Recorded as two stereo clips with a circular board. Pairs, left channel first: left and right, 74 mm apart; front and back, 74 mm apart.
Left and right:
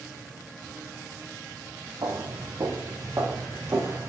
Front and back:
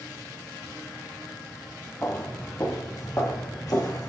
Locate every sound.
2.0 s footsteps: 60° right, 1.4 m; by 4.1 s 35° right, 3 m